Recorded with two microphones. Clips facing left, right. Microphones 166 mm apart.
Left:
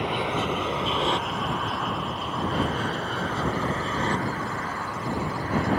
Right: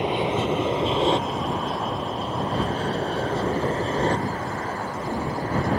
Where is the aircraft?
20° right (ahead or behind); by 5.8 s 35° right (ahead or behind).